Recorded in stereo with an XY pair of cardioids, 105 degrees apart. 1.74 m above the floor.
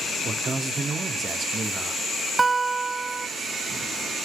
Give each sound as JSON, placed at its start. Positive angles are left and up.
{"t": 0.2, "sound": "a man speaking", "azimuth_deg": -40, "distance_m": 1.2}
{"t": 2.4, "sound": "a guitar", "azimuth_deg": -30, "distance_m": 0.6}